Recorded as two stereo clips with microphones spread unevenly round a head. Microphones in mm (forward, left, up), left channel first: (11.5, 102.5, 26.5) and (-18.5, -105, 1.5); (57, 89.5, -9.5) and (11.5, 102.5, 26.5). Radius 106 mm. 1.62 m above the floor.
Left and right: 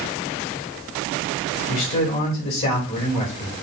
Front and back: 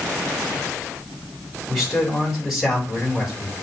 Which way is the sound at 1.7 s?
75° left.